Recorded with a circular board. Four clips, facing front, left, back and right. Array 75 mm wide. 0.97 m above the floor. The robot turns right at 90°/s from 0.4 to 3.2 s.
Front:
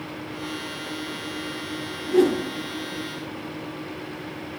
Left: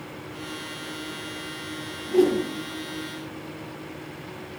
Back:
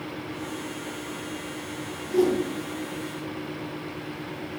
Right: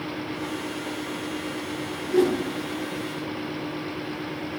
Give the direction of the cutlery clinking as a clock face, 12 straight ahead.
I don't hear cutlery clinking.